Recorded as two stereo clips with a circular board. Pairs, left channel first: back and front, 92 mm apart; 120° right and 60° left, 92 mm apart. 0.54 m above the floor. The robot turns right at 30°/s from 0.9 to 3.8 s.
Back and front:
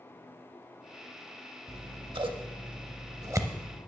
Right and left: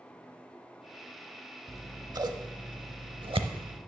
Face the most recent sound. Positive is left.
turn(degrees=65)